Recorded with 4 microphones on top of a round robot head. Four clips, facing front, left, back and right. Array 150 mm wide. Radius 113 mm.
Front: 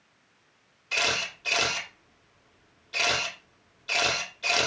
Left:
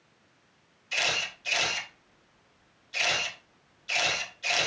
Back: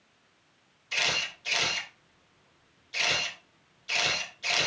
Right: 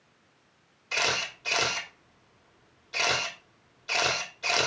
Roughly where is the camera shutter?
Ahead right.